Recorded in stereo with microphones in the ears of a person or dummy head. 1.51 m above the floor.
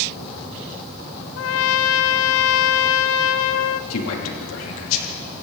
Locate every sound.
1.4 s a trumpet: 80° left, 0.8 m
3.9 s a man speaking: 85° left, 3 m